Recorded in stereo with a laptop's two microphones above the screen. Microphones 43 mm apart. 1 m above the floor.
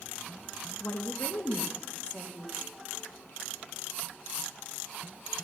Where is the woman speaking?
70° left (ahead or behind), 1.2 m; by 2.6 s 15° left (ahead or behind), 2 m.